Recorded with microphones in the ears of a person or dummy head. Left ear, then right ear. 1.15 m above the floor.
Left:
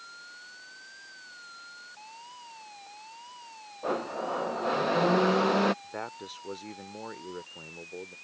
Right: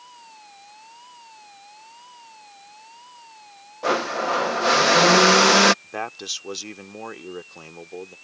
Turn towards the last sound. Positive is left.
turn(degrees=-85)